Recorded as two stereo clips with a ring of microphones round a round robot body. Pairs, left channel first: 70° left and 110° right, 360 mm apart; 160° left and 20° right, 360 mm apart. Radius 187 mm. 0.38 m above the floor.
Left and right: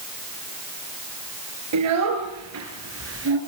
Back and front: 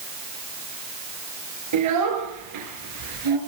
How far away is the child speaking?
About 5.5 m.